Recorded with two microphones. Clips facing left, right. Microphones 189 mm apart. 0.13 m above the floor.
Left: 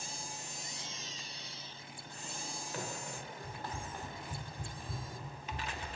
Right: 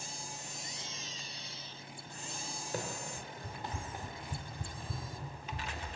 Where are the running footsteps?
45° right (ahead or behind), 1.0 m; by 5.9 s 25° left (ahead or behind), 1.6 m.